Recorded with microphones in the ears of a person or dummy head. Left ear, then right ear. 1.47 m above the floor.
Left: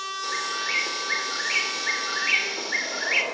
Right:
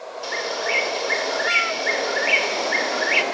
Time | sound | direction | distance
0.2 | a bird | 10° right (ahead or behind) | 3 m